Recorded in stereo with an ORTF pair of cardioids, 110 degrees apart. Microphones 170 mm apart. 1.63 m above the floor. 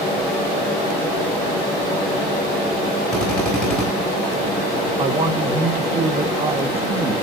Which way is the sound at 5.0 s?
35° right.